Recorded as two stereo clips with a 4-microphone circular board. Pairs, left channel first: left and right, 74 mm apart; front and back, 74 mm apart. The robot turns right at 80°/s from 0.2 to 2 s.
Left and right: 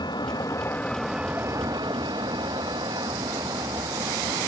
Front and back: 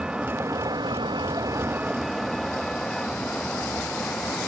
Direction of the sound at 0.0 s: 100° left.